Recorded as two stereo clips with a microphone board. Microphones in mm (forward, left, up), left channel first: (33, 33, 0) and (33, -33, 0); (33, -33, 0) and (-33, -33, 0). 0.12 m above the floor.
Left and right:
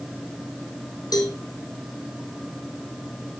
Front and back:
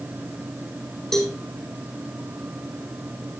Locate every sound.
1.1 s a cowbell: 85° left, 3 m